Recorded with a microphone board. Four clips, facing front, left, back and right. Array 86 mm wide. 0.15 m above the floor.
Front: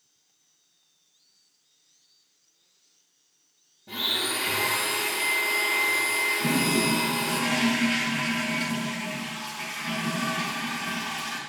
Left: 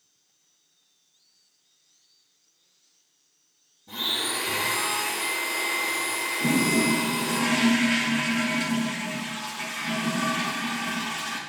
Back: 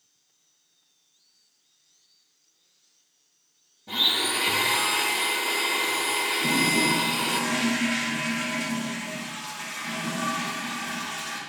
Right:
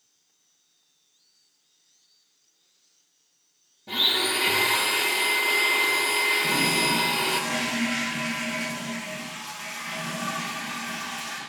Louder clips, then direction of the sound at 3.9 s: Right 4 dB, back 2 dB; 105° right.